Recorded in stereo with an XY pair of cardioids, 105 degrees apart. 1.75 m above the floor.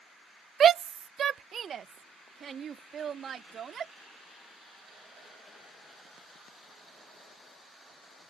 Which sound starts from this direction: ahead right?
A shout, at 0.6 s.